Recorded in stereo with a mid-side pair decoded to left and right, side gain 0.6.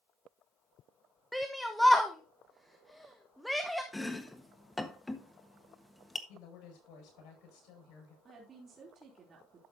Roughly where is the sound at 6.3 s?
Ahead left.